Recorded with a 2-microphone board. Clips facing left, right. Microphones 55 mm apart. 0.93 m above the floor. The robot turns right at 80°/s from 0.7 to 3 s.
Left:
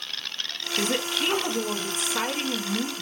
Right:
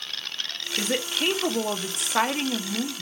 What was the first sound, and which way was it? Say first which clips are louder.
A woman speaking: even; 175° right.